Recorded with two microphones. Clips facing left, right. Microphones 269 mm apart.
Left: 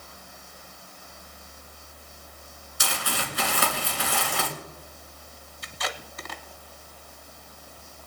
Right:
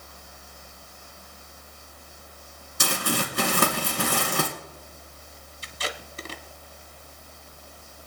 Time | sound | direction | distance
2.8 | crumpling | 55° right (ahead or behind) | 2.5 m
5.6 | tape being pulled | 30° right (ahead or behind) | 1.0 m